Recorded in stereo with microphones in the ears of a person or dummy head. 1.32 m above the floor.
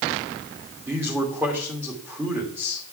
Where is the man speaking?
5° right (ahead or behind), 2.5 m.